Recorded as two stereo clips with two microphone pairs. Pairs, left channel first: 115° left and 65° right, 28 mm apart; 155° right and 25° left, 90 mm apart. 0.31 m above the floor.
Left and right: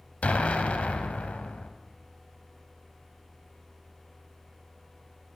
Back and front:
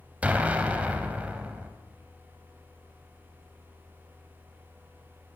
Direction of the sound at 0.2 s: 100° left.